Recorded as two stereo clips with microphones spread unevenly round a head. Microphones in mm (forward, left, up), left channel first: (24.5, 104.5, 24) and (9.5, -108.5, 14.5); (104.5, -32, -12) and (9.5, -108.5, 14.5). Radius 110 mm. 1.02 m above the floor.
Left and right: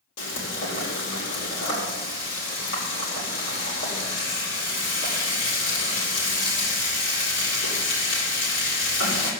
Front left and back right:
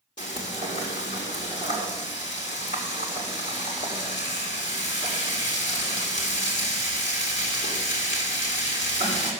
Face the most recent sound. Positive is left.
turn(degrees=105)